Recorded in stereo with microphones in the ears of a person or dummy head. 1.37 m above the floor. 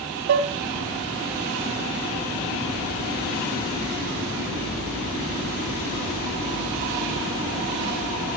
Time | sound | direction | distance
0.3 | dishes clattering | 55° right (ahead or behind) | 1.2 m